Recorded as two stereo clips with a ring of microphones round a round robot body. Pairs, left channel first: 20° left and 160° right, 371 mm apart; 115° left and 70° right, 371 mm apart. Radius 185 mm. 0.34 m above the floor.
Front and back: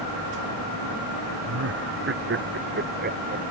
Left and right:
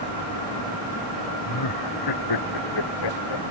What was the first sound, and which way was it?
Laughter, 150° left.